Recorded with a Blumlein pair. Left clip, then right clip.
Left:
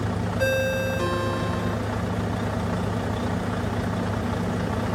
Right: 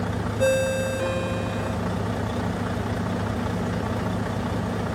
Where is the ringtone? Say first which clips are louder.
Right 2 dB; 25° left, 2.5 m.